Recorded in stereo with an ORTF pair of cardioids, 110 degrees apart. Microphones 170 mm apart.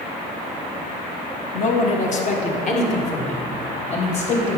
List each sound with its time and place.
1.5 s a man speaking: 50° left, 1.5 m; by 4.6 s 40° left, 3 m